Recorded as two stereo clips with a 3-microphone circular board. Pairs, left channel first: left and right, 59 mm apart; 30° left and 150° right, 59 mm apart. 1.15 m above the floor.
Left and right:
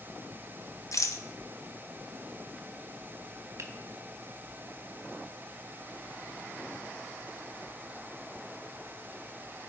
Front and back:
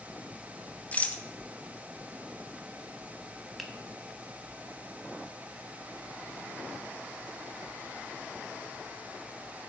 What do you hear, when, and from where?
0.9 s a rattle: 90° left, 0.9 m
3.6 s a finger snap: 60° right, 1.3 m